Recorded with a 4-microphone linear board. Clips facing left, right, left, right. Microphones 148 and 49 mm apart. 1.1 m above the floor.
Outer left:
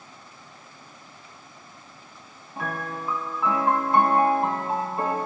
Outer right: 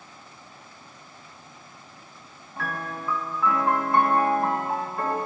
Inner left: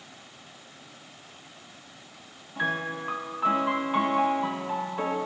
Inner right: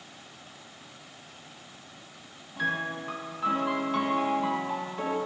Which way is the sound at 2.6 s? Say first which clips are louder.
Outer left 1 dB, inner left 1 dB; 20° left (ahead or behind).